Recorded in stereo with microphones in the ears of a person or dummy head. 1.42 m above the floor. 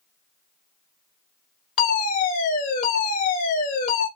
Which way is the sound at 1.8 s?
40° left (ahead or behind).